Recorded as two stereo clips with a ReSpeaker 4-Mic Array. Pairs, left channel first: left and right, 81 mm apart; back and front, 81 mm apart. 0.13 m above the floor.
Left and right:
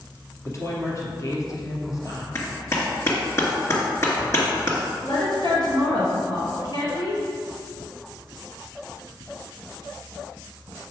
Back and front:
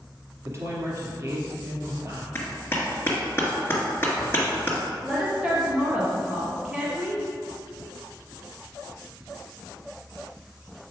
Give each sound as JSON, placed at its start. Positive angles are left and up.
{"t": 0.5, "sound": "a woman speaking", "azimuth_deg": 45, "distance_m": 2.5}
{"t": 2.4, "sound": "a clap", "azimuth_deg": 130, "distance_m": 1.9}
{"t": 5.0, "sound": "a woman speaking", "azimuth_deg": 75, "distance_m": 2.5}